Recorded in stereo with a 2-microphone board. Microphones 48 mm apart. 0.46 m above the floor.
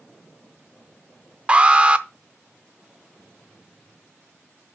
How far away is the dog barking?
I don't hear a dog barking.